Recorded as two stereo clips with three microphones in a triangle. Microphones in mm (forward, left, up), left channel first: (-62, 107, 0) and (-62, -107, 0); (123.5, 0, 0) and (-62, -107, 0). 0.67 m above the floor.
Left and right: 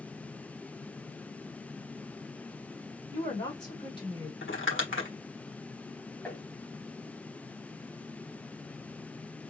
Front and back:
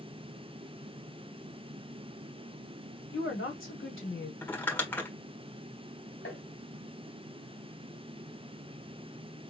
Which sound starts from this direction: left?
Crumpling, at 4.4 s.